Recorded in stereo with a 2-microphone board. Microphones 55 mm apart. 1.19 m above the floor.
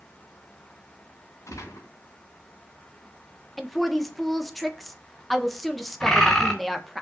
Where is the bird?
15° left (ahead or behind), 3.5 m.